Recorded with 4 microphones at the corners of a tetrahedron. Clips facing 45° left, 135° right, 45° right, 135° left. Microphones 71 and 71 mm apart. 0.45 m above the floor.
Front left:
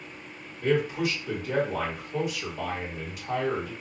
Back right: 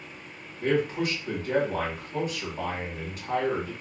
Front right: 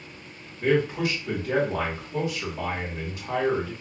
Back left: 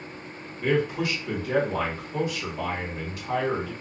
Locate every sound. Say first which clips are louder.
0.6 s a man speaking: even, front right 1 dB; 100° right, 2 m